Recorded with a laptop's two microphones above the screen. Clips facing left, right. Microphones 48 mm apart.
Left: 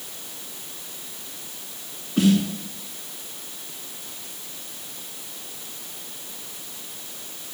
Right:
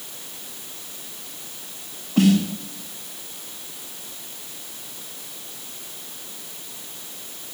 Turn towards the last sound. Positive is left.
turn(degrees=-70)  # may be behind; listen again after turning